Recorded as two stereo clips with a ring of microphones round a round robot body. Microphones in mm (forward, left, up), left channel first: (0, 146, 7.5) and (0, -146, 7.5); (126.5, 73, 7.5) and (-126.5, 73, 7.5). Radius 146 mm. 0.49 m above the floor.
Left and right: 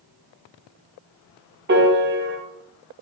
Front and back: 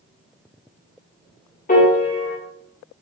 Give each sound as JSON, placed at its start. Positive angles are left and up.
{"t": 1.7, "sound": "a piano", "azimuth_deg": -50, "distance_m": 1.0}